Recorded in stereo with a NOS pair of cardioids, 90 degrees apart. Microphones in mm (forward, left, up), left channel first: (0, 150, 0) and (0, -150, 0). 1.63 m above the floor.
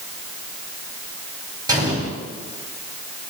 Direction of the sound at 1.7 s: 15° right.